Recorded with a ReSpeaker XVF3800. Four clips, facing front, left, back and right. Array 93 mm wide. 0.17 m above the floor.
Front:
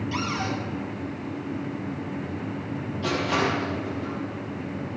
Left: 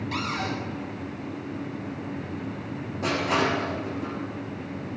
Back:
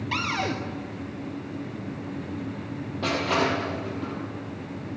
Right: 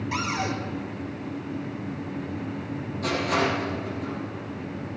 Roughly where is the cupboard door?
Behind.